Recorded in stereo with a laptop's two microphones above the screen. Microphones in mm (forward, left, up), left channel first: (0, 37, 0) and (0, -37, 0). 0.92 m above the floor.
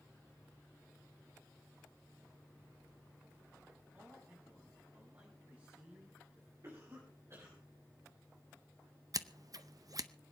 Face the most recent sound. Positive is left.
turn(degrees=-55)  # may be behind; listen again after turning